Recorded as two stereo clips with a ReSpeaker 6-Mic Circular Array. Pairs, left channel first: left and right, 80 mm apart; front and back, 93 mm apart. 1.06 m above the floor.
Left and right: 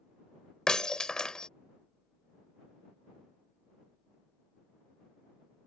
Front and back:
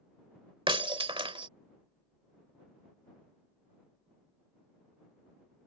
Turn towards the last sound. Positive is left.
turn(degrees=170)